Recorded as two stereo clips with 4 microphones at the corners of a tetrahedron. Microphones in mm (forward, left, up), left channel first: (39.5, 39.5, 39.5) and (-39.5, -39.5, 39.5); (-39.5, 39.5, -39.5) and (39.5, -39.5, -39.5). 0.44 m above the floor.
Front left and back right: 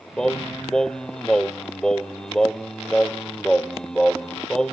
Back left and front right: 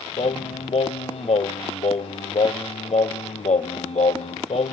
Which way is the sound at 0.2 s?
130° left.